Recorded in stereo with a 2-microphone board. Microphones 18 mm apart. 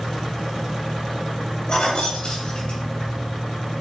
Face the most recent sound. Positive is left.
turn(degrees=50)  # may be behind; listen again after turning